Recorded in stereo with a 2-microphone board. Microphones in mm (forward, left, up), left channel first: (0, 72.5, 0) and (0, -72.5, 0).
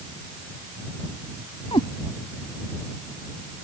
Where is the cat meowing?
40° left (ahead or behind).